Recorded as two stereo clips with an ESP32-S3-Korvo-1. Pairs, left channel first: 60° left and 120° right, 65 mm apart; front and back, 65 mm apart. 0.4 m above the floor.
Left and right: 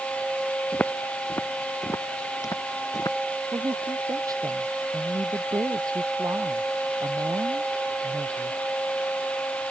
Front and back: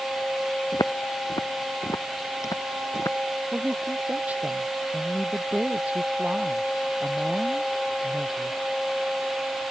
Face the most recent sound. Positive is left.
turn(degrees=-115)